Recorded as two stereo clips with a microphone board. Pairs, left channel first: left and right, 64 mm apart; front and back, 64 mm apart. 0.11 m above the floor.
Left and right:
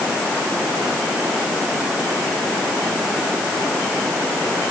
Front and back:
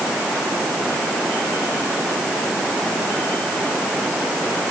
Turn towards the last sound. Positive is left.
No sound to turn to.